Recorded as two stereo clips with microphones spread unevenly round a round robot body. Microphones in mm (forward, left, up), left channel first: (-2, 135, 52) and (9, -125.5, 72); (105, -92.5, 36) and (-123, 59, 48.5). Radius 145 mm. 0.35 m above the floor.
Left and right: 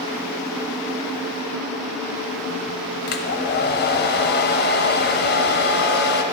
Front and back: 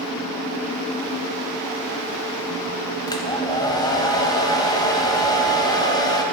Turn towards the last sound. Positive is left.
turn(degrees=40)